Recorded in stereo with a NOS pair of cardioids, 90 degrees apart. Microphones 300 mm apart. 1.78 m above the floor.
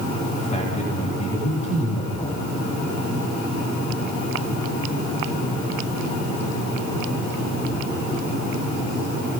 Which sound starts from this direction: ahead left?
A man speaking, at 0.4 s.